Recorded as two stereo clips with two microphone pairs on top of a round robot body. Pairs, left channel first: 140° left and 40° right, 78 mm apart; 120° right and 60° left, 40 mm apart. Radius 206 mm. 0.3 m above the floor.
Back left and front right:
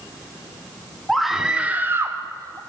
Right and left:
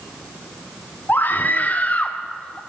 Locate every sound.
1.1 s a scream: 130° right, 1.6 m; by 2.6 s 60° right, 1.8 m